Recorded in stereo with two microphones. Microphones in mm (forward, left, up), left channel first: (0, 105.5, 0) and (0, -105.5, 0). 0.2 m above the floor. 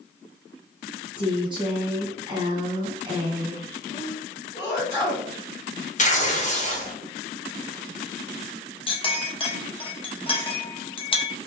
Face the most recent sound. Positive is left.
turn(degrees=25)  # may be behind; listen again after turning